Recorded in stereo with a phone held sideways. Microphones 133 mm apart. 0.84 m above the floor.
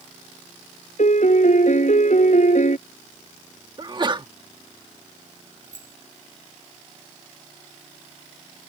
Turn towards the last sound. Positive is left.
turn(degrees=-80)